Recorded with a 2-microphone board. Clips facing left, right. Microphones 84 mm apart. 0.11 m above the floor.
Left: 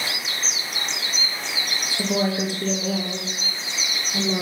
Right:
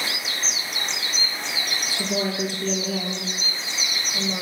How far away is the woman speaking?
About 2.5 m.